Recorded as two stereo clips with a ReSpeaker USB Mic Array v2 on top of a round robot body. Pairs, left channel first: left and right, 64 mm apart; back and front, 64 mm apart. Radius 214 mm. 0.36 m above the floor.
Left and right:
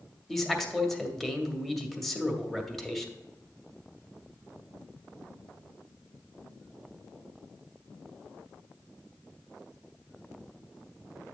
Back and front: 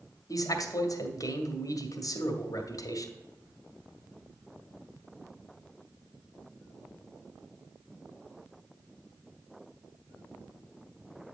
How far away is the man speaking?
About 1.5 m.